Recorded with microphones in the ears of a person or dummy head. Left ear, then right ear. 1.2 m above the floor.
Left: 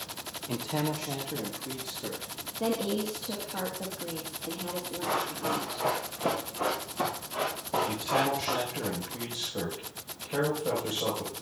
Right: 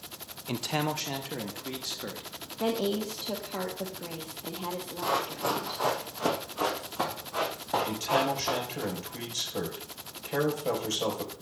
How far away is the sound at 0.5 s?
About 0.6 m.